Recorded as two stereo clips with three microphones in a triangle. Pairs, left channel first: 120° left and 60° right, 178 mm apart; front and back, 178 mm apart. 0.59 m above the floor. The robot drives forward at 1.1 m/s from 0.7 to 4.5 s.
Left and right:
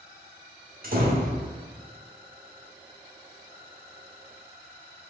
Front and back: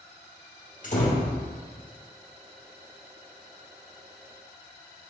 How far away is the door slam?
About 1.4 m.